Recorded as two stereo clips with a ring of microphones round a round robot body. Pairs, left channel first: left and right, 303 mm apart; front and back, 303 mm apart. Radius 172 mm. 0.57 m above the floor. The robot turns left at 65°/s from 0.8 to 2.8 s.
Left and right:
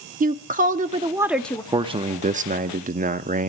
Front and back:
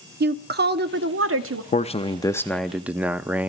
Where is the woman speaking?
140° right, 1.1 m; by 1.6 s 165° left, 1.1 m.